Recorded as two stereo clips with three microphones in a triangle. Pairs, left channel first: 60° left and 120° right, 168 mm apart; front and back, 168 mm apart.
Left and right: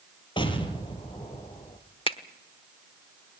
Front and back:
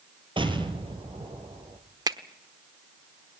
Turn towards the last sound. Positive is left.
turn(degrees=115)